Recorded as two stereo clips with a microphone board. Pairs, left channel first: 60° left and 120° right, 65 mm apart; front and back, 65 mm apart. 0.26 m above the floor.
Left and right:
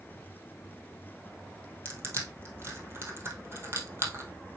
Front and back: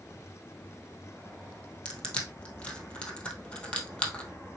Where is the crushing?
75° right, 2 m.